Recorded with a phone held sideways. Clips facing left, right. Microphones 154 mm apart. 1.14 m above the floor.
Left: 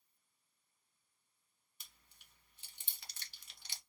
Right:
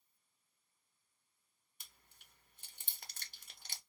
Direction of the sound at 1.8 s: 50° right (ahead or behind).